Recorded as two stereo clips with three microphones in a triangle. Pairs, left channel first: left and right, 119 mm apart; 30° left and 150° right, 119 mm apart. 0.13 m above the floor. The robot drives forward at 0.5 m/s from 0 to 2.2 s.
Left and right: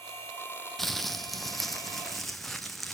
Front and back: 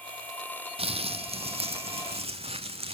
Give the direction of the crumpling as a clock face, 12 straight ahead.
6 o'clock.